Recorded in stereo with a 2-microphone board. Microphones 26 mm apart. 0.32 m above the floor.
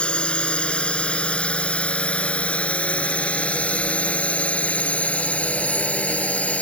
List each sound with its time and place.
0.0 s a drone: 45° left (ahead or behind); by 6.6 s 65° left (ahead or behind)